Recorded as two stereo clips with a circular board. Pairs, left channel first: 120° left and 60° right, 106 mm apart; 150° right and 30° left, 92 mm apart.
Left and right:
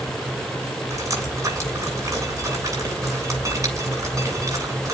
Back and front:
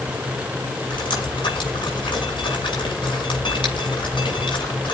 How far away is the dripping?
About 8 m.